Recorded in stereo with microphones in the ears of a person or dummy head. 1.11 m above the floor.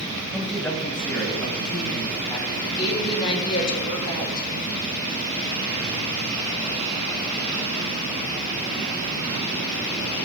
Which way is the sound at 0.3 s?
Centre (ahead or behind).